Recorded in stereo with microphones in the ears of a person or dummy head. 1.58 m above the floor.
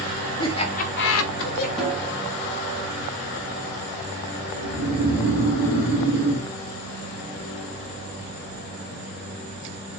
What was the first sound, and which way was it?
Laughter, 25° left (ahead or behind).